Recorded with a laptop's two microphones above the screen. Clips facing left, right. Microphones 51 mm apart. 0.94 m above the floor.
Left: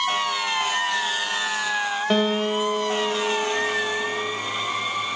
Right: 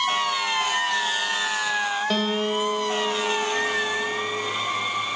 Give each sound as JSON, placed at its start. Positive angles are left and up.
{"t": 2.1, "sound": "a guitar", "side_deg": 20, "distance_m": 0.7}